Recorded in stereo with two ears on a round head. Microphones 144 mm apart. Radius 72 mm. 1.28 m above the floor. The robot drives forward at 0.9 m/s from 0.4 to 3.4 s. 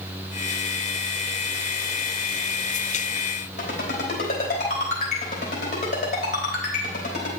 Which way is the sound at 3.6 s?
45° left (ahead or behind).